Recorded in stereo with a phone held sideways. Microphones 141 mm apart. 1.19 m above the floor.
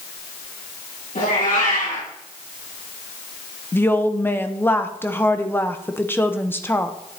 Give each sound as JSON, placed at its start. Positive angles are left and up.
{"t": 1.1, "sound": "a cat meowing", "side_deg": 75, "distance_m": 4.5}
{"t": 3.7, "sound": "a woman speaking", "side_deg": 15, "distance_m": 0.7}